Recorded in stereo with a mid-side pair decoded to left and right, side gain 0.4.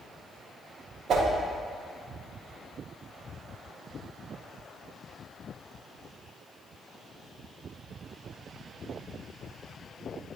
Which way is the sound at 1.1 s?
65° right.